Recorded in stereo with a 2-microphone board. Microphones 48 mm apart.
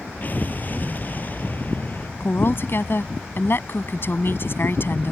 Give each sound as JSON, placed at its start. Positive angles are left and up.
{"t": 0.2, "sound": "an explosion", "side_deg": 40}
{"t": 2.2, "sound": "a woman speaking", "side_deg": 50}